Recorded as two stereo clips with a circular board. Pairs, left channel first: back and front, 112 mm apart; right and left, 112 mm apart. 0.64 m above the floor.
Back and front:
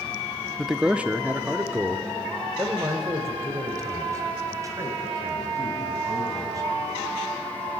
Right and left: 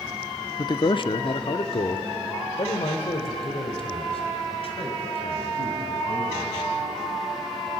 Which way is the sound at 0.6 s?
90° right.